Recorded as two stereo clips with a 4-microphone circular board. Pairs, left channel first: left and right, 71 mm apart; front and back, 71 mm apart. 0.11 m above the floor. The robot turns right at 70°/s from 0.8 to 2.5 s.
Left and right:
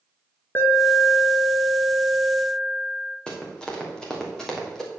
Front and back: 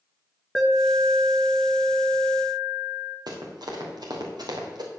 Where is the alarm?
85° left, 1.6 m; by 3.2 s 155° right, 1.6 m.